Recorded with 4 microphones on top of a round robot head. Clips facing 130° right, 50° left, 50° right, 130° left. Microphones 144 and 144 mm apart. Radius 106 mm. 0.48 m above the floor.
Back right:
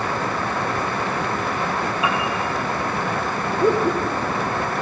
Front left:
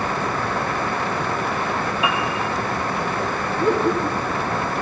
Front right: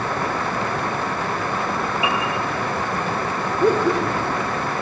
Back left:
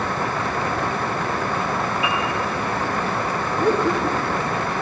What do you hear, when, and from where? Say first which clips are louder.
2.0 s a piano: even, front right 3 dB; 35° right, 3.5 m
3.6 s laughter: back right 1 dB, front right 2 dB; 85° right, 2 m